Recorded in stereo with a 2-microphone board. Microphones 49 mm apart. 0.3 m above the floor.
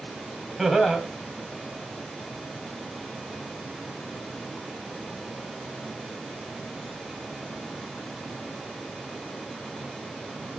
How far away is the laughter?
About 1.6 m.